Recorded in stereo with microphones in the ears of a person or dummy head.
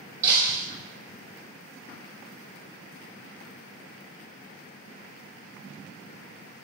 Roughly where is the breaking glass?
Centre.